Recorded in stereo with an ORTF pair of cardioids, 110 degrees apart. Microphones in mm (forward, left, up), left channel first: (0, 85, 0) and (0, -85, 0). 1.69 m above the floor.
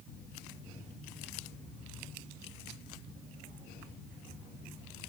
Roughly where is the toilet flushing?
I don't hear a toilet flushing.